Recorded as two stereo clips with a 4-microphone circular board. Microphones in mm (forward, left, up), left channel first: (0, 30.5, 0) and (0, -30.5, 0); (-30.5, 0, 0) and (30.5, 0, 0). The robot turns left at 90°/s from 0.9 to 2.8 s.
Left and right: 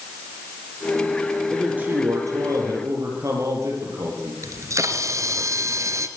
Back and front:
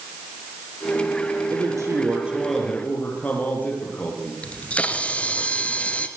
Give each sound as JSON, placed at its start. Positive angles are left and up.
{"t": 1.5, "sound": "a man speaking", "azimuth_deg": 0, "distance_m": 6.5}
{"t": 4.4, "sound": "a camera shutter", "azimuth_deg": -115, "distance_m": 1.9}